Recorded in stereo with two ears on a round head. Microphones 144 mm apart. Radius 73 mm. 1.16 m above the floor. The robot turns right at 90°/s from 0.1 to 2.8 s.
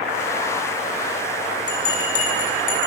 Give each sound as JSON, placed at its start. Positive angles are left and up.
{"t": 1.7, "sound": "a bell", "side_deg": 25, "distance_m": 9.5}